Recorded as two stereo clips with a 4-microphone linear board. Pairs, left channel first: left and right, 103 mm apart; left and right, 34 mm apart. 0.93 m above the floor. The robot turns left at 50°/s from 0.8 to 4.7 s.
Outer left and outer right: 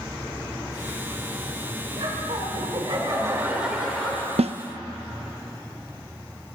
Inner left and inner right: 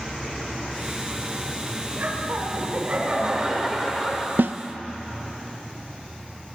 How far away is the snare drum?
About 0.6 m.